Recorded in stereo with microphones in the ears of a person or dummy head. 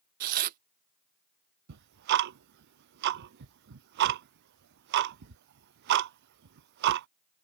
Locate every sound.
0.2 s tearing paper: 50° right (ahead or behind)
1.7 s ticking: 50° right (ahead or behind)